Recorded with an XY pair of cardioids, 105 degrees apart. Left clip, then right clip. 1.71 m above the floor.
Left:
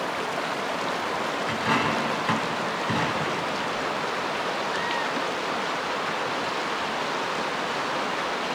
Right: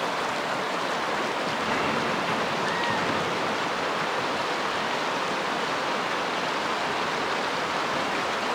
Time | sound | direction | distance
1.5 | a dropped coin | 50° left | 5 m